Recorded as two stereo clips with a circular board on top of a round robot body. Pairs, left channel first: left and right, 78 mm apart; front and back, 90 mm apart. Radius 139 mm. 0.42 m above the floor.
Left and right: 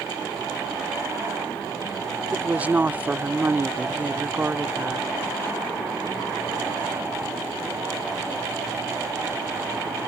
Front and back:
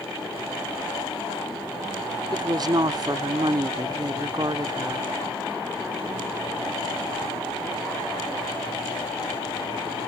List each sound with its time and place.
2.3 s a woman speaking: 155° right